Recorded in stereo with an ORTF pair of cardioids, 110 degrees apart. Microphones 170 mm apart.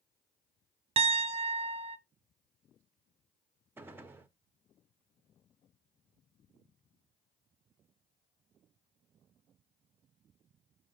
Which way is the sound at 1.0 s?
35° right.